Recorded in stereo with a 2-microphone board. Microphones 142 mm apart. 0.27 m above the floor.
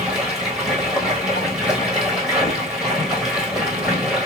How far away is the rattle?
I don't hear a rattle.